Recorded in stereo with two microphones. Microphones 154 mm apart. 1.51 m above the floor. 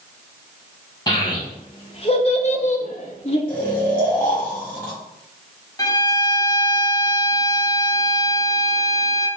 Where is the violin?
25° left (ahead or behind), 0.6 m.